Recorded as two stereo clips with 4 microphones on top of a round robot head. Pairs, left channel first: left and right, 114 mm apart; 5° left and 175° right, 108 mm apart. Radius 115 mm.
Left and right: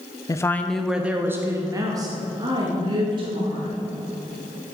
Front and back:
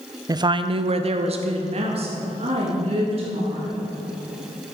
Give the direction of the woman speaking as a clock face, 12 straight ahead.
7 o'clock.